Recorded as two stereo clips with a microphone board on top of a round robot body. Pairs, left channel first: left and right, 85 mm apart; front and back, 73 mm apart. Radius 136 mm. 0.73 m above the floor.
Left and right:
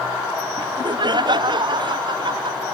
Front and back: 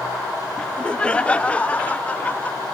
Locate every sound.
0.6 s laughter: 75° right; by 2.6 s 70° right